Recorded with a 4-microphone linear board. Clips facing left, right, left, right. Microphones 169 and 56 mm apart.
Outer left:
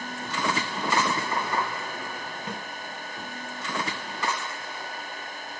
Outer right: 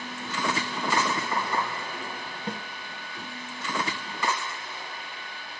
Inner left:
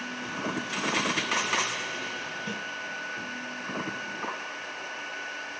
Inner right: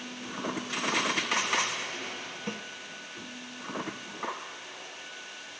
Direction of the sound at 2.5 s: 35° right (ahead or behind).